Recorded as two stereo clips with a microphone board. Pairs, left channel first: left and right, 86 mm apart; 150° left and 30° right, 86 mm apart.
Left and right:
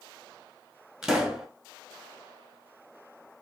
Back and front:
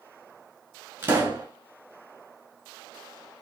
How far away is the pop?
About 1.0 m.